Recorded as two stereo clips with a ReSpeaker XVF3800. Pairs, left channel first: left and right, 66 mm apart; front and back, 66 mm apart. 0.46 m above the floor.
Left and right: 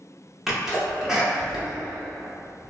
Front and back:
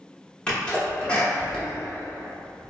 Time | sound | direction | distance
0.5 | a sneeze | 25° right | 0.8 m